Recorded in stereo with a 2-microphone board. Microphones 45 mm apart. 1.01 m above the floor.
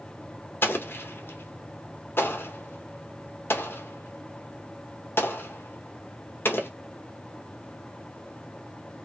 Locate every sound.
0.6 s an explosion: 60° left (ahead or behind), 0.9 m